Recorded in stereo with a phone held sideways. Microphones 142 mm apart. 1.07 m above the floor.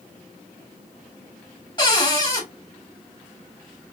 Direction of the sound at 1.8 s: 35° left (ahead or behind).